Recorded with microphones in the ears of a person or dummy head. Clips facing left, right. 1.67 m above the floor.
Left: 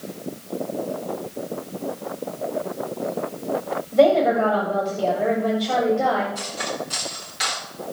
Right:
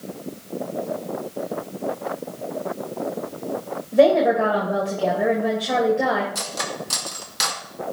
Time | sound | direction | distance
3.9 | a woman speaking | 15° right (ahead or behind) | 1.9 m
6.3 | cutlery clinking | 65° right (ahead or behind) | 1.6 m